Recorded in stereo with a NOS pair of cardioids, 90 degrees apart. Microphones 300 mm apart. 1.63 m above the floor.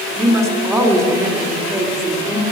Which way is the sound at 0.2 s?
10° right.